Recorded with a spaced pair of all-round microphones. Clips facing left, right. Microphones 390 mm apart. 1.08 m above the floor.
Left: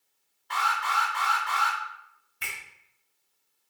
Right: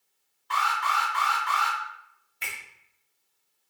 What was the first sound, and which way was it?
An alarm, 20° right (ahead or behind).